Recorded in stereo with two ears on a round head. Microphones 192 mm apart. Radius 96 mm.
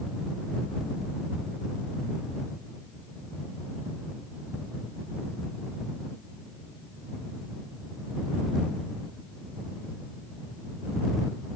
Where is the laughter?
No laughter in this recording.